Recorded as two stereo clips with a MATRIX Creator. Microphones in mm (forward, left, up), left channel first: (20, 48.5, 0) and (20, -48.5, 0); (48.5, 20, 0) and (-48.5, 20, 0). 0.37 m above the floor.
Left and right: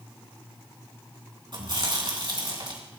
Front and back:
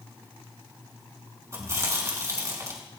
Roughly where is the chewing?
Behind right.